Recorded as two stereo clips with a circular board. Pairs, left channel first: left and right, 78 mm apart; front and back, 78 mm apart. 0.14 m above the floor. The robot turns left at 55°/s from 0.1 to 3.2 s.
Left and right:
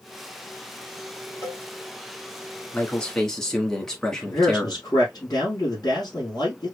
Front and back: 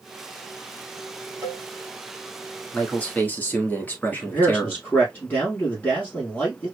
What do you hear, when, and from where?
1.4 s a cowbell: 135° left, 3 m; by 1.6 s 120° left, 3 m
2.7 s a man speaking: 45° left, 1.2 m; by 4.8 s 15° left, 1.2 m
4.1 s a man speaking: 60° left, 3 m